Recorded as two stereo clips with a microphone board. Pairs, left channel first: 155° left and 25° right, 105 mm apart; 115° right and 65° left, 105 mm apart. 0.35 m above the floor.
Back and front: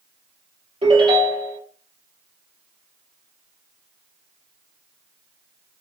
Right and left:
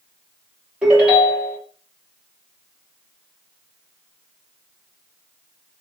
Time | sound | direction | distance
0.8 | a ringtone | 10° right | 3 m